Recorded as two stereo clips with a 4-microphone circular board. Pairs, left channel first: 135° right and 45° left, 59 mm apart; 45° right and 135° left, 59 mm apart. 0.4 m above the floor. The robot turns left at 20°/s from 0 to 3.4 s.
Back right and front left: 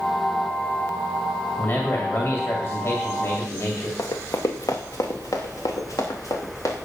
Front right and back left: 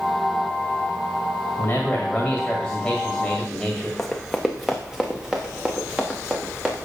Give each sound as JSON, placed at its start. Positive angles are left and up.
{"t": 1.6, "sound": "a man speaking", "azimuth_deg": -90, "distance_m": 2.0}
{"t": 4.0, "sound": "running footsteps", "azimuth_deg": -130, "distance_m": 1.4}